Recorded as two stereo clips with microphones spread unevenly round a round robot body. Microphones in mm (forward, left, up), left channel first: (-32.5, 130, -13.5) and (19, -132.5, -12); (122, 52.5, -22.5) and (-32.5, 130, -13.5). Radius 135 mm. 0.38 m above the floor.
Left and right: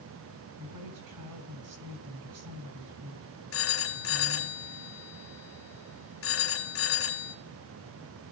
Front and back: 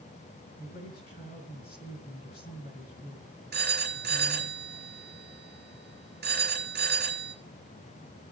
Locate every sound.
0.6 s a woman speaking: 80° right, 4 m
3.5 s a phone ringing: 135° left, 2.5 m